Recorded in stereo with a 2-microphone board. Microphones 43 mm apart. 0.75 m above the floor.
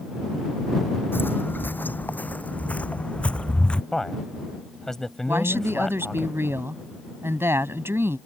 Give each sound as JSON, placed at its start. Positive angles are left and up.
{"t": 1.1, "sound": "footsteps", "side_deg": 60}
{"t": 3.9, "sound": "a man speaking", "side_deg": 10}
{"t": 5.3, "sound": "a woman speaking", "side_deg": -75}